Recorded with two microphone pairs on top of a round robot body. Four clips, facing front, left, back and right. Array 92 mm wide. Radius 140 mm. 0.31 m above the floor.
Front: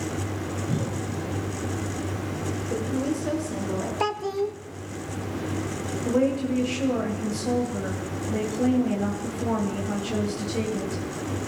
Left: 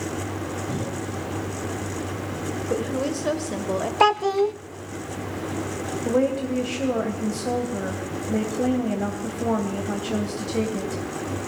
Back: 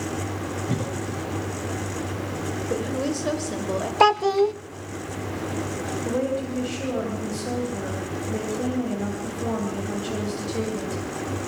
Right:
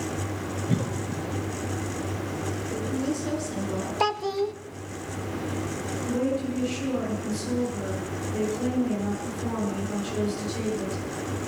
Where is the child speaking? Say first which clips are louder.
Left 7 dB, back 11 dB; 140° left, 0.5 m.